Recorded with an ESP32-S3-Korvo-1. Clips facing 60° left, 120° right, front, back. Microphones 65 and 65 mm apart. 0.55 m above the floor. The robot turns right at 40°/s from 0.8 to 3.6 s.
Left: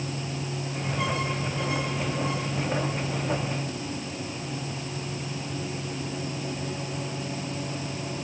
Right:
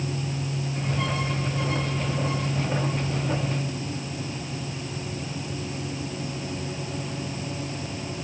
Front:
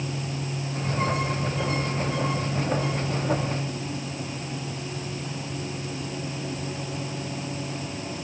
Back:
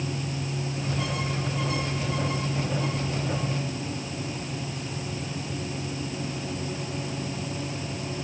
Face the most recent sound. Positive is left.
No sound to turn to.